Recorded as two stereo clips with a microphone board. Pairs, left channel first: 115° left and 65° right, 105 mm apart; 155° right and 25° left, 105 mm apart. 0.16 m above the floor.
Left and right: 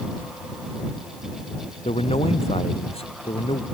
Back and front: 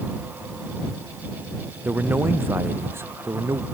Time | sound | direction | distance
1.9 | a man speaking | 95° left | ?